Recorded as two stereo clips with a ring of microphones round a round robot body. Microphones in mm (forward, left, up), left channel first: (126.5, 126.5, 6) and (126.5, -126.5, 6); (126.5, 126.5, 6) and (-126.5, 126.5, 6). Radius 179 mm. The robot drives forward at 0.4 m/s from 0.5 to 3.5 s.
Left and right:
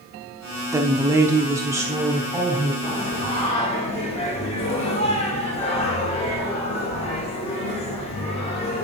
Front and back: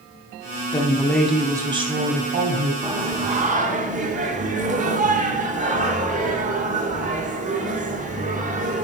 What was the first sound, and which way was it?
A woman speaking, 30° right.